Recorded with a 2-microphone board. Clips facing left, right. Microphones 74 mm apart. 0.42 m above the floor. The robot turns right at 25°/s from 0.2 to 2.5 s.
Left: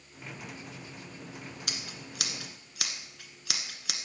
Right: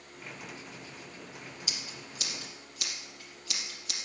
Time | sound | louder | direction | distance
1.7 | scissors | left 1 dB | 55° left (ahead or behind) | 1.4 m